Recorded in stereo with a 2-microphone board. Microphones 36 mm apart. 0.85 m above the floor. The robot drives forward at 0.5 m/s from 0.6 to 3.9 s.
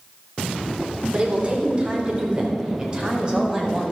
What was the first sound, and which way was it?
A woman speaking, 35° right (ahead or behind).